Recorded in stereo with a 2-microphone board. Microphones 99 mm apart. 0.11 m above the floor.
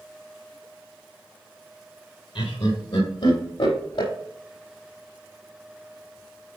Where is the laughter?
60° left (ahead or behind), 3 m; by 4.1 s 65° left (ahead or behind), 4 m.